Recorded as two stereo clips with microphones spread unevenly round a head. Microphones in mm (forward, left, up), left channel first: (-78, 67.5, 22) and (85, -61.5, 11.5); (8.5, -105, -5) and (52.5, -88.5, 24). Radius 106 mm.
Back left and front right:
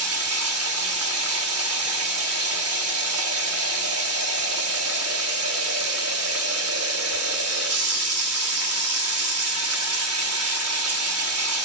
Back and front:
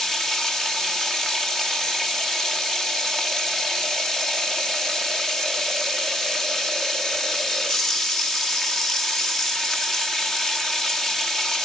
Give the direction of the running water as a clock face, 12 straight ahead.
2 o'clock.